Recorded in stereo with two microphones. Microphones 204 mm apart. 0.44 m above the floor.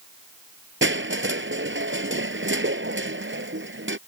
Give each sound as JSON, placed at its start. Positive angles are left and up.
{"t": 0.8, "sound": "crushing", "side_deg": -75}